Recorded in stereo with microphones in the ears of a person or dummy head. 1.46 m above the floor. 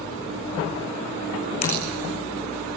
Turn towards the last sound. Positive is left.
turn(degrees=45)  # may be behind; listen again after turning